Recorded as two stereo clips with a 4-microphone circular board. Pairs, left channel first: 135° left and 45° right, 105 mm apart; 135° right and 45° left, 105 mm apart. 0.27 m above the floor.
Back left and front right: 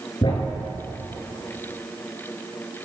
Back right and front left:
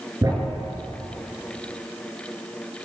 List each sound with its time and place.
0.2 s a thud: 95° left, 1.7 m